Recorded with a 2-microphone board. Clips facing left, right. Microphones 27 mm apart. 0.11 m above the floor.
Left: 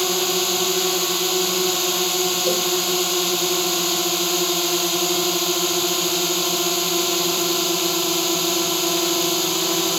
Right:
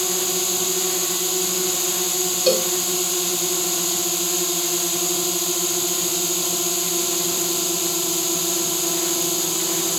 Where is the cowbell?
40° right (ahead or behind).